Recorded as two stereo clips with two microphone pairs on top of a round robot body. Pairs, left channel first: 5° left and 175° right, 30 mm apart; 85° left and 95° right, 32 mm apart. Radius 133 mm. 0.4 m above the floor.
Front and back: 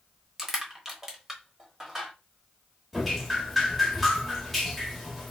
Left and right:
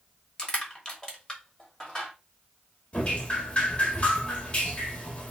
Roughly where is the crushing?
Behind left.